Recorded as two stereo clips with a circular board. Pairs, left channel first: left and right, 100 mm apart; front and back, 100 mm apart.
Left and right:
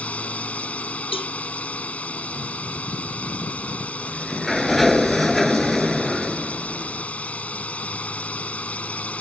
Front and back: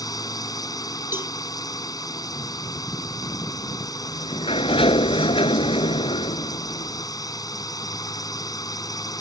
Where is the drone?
20° left.